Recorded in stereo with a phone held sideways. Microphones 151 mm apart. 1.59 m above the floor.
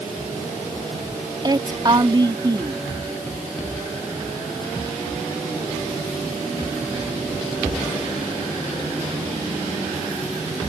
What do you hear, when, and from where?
1.4 s a woman speaking: 30° right (ahead or behind)